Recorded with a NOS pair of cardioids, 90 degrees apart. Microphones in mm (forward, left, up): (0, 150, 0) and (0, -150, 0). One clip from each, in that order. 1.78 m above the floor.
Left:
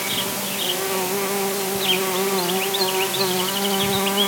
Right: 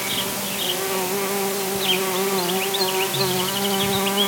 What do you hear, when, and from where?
0.0 s an insect: straight ahead